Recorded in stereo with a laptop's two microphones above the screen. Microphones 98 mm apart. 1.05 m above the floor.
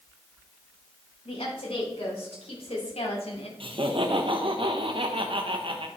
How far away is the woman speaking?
About 4 m.